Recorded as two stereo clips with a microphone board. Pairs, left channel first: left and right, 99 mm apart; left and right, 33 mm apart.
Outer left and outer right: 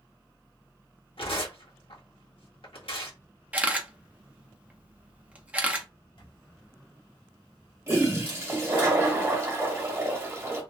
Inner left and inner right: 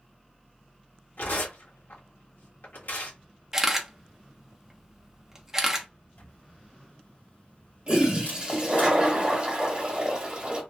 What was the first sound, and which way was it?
Tearing paper, 75° left (ahead or behind).